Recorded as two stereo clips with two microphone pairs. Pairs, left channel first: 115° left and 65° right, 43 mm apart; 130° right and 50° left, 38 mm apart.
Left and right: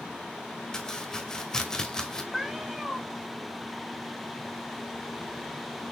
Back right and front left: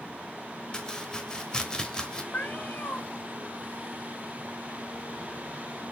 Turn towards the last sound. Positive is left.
turn(degrees=-150)